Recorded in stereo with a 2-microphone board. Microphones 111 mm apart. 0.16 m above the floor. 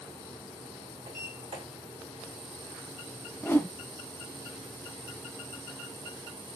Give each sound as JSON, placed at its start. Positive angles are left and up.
{"t": 1.1, "sound": "a sliding door", "side_deg": -85, "distance_m": 2.5}
{"t": 3.4, "sound": "a whoosh", "side_deg": 20, "distance_m": 0.6}